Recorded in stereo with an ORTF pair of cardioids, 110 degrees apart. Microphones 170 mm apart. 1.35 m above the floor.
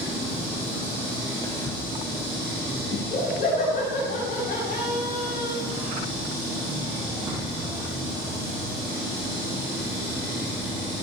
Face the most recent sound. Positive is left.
turn(degrees=55)